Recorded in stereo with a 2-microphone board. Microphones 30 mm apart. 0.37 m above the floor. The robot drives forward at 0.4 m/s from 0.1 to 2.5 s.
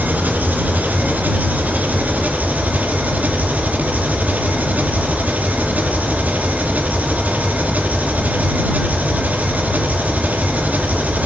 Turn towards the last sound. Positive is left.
turn(degrees=-60)  # may be behind; listen again after turning